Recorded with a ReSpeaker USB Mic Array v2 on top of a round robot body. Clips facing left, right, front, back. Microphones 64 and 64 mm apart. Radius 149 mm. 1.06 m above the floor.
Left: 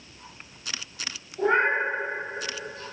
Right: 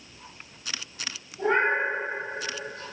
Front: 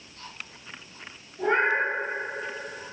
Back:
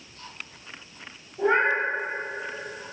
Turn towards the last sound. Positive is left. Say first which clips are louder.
# left 1 dB, back 1 dB
turn(degrees=135)